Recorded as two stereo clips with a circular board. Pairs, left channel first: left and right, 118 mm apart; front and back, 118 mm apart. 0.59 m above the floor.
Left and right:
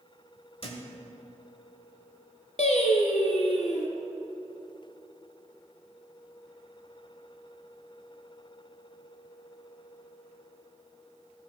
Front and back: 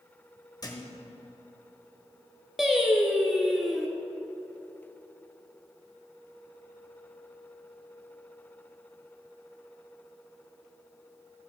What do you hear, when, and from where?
0.6 s a thud: 55° left, 1.3 m
2.6 s singing: 90° left, 1.3 m